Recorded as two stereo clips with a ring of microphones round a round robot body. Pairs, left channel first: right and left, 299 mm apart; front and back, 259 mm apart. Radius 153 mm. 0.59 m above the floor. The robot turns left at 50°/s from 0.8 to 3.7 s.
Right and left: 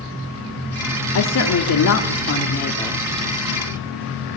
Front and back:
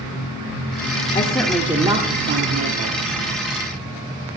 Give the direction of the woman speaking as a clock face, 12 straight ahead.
2 o'clock.